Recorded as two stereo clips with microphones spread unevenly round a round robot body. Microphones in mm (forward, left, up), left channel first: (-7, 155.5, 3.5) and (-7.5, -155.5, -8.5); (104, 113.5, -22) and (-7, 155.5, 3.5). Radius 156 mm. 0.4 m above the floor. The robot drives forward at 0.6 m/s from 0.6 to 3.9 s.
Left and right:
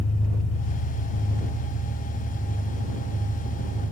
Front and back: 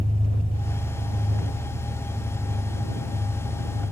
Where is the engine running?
130° left, 1.9 m; by 3.9 s 160° left, 3.5 m.